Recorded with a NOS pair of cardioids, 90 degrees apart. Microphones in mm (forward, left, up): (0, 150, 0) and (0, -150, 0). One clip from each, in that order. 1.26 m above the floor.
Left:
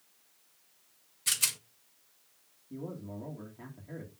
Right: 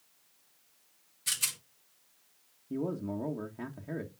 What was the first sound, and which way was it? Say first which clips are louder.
A rattle: left 3 dB; 15° left.